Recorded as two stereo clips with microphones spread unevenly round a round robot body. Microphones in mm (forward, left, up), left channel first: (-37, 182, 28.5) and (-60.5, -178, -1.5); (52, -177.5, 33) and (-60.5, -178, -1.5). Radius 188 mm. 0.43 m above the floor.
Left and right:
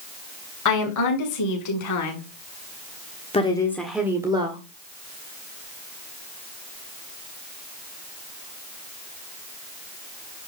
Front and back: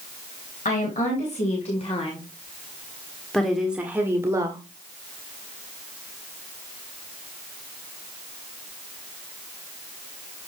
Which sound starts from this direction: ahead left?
A woman speaking, at 0.7 s.